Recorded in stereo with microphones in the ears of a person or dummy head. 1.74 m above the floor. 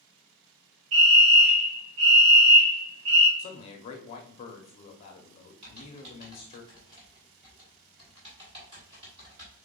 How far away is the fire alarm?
About 3 m.